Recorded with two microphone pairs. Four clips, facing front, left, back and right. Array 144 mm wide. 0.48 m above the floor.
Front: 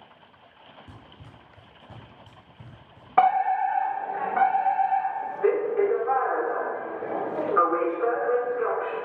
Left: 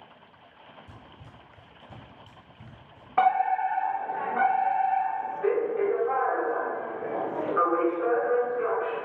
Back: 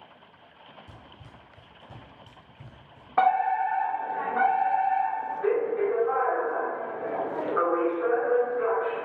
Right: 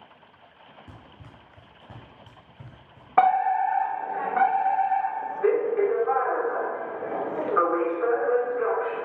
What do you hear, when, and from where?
0.9 s running footsteps: 65° right, 4 m; by 3.1 s 80° right, 5 m
3.2 s a fire alarm: 60° right, 2.5 m